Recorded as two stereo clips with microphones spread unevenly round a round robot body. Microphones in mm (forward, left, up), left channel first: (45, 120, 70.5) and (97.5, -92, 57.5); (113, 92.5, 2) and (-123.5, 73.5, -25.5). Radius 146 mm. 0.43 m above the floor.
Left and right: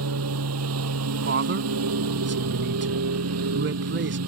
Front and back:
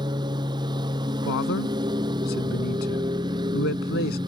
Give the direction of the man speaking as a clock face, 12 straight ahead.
2 o'clock.